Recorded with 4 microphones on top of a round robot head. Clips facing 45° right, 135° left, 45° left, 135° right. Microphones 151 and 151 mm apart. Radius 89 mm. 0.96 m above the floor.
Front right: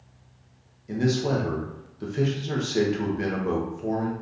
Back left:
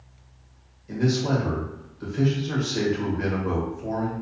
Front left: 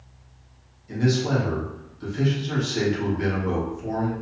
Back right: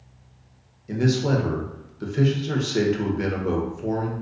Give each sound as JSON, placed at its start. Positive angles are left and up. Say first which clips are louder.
{"t": 0.9, "sound": "a man speaking", "louder": "even, back right 1 dB", "azimuth_deg": -110, "distance_m": 0.7}